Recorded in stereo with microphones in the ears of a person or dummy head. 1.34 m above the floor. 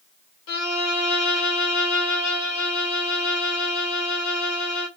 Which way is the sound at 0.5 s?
85° left.